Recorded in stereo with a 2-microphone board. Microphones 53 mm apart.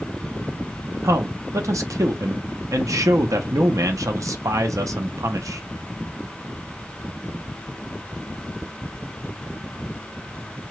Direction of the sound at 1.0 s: 90° right.